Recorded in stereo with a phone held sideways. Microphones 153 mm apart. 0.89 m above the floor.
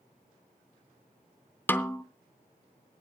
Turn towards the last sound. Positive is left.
turn(degrees=15)  # may be behind; listen again after turning